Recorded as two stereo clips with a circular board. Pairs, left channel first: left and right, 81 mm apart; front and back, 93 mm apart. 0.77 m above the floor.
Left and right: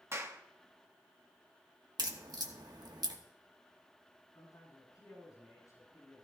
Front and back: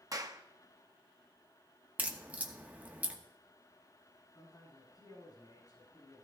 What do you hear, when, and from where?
0.1 s a clap: 140° right, 0.9 m
2.0 s a crack: 110° right, 1.2 m
4.3 s a man speaking: 45° left, 9 m